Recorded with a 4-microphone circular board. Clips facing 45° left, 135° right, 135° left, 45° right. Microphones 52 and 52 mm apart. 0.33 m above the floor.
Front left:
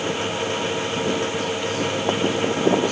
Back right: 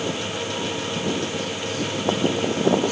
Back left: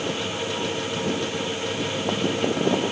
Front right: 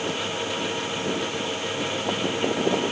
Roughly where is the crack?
No crack in this recording.